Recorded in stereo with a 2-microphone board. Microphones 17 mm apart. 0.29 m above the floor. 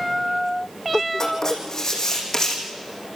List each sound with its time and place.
1.2 s writing: 35° left (ahead or behind), 4.5 m